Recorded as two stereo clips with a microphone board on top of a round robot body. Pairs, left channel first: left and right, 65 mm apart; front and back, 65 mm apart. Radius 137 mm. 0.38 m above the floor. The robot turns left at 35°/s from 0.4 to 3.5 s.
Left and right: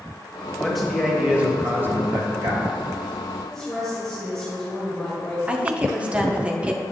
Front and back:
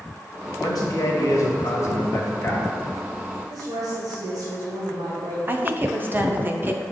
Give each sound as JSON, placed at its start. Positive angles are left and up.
{"t": 0.6, "sound": "a man speaking", "azimuth_deg": 5, "distance_m": 1.9}
{"t": 3.5, "sound": "a woman speaking", "azimuth_deg": 175, "distance_m": 2.5}
{"t": 5.5, "sound": "a woman speaking", "azimuth_deg": -150, "distance_m": 1.1}